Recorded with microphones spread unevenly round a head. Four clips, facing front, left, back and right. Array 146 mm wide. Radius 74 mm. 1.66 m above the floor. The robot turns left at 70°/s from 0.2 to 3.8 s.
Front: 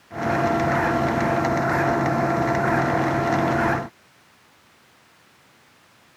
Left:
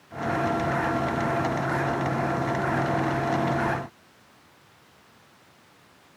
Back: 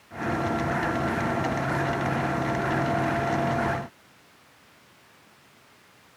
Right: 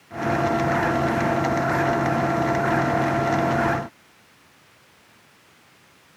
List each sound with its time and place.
Only background noise.